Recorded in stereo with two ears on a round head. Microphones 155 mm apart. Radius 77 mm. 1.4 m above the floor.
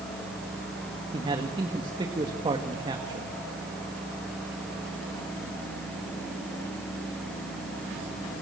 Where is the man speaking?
25° right (ahead or behind), 2 m.